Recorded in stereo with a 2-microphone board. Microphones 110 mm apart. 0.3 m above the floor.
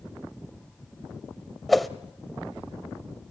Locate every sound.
1.7 s a whoosh: centre (ahead or behind), 0.8 m